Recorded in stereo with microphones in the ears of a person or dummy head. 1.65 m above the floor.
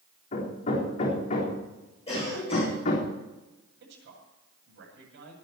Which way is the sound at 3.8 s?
65° right (ahead or behind).